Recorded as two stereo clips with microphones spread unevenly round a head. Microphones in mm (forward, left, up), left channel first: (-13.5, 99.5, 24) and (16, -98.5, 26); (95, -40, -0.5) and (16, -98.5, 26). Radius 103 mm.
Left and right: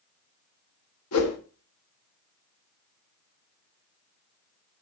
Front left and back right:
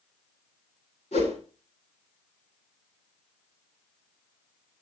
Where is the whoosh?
85° left, 1.7 m.